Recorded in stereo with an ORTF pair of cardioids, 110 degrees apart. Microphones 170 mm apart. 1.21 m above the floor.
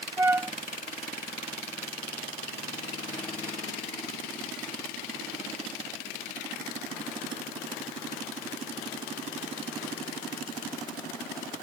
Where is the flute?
15° right.